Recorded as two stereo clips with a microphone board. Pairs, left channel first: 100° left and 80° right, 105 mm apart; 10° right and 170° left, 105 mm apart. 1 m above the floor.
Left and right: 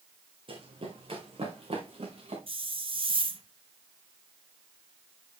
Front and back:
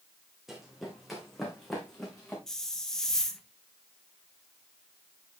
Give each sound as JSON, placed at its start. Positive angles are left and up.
{"t": 0.5, "sound": "running footsteps", "azimuth_deg": -105, "distance_m": 3.0}
{"t": 2.5, "sound": "a hiss", "azimuth_deg": -95, "distance_m": 1.1}